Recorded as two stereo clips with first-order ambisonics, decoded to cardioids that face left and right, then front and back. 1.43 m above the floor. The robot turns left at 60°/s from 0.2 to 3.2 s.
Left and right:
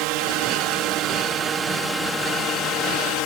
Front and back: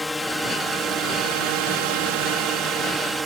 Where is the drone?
80° right; by 3.3 s 100° left.